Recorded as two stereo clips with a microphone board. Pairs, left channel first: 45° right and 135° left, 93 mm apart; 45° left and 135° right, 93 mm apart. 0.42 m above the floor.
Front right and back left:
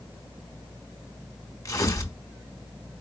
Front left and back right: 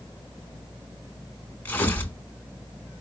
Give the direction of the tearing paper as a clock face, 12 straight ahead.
12 o'clock.